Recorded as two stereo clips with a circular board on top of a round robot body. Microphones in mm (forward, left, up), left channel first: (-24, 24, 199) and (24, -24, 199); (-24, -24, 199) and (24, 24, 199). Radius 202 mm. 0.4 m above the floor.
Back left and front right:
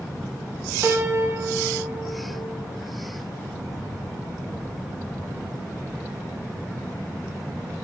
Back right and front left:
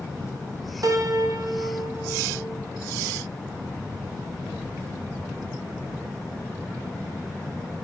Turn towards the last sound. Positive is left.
turn(degrees=10)